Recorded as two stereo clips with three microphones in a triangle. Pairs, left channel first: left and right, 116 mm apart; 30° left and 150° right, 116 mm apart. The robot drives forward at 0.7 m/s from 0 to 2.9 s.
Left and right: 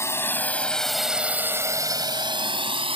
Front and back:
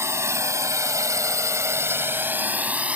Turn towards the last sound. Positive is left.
turn(degrees=-75)